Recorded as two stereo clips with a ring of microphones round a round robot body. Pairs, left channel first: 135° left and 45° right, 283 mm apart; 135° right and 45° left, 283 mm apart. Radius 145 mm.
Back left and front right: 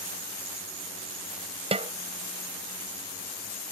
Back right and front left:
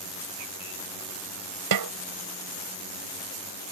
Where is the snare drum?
25° left.